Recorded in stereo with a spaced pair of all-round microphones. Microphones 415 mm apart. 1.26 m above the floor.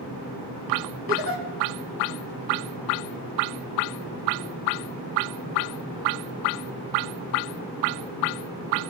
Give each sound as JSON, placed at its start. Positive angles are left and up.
{"t": 1.1, "sound": "a giggle", "side_deg": -30, "distance_m": 1.5}